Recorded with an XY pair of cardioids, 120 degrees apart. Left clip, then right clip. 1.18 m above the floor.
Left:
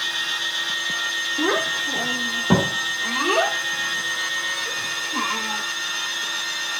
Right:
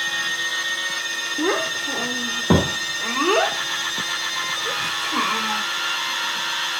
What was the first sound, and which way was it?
A child speaking, 5° right.